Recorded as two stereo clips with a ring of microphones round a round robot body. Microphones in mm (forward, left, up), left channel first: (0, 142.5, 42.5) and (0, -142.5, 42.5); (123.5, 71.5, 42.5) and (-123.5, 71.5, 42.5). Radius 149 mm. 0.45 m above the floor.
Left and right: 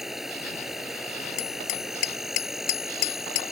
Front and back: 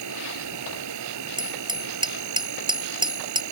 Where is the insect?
Straight behind.